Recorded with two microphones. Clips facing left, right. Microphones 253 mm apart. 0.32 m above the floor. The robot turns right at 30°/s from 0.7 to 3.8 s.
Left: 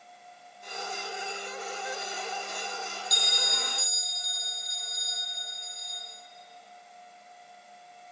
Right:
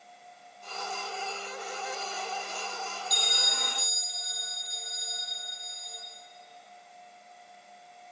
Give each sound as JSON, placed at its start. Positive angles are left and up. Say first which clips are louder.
{"t": 3.1, "sound": "a bell", "louder": "left 1 dB", "side_deg": -75, "distance_m": 4.0}